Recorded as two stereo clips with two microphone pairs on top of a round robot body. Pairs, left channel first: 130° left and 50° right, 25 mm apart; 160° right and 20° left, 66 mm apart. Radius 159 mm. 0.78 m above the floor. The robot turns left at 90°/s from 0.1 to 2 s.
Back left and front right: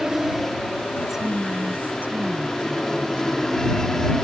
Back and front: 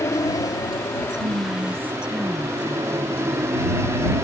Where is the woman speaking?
25° left; by 3.5 s 55° right.